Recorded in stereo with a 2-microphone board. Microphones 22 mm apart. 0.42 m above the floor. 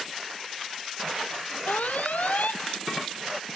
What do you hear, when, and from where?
1.7 s an alarm: 80° left